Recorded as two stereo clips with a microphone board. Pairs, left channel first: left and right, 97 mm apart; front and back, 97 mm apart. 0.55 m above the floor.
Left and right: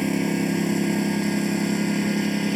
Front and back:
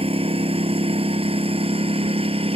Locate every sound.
0.0 s a lawn mower: straight behind